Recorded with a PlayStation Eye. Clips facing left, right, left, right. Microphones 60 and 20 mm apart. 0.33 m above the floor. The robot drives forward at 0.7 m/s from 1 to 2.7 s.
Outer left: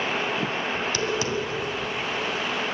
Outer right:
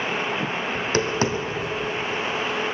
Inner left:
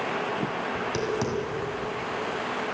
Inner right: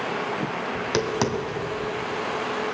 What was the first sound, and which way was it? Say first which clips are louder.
Tapping: outer right 6 dB, inner right 5 dB; 40° right (ahead or behind).